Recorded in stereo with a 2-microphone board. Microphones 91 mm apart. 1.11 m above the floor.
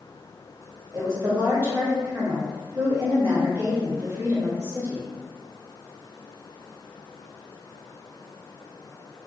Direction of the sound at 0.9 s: 30° right (ahead or behind).